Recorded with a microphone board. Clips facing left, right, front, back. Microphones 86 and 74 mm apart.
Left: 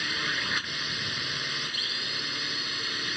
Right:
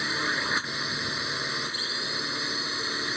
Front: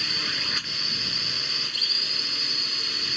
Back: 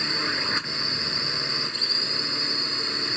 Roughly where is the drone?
Behind right.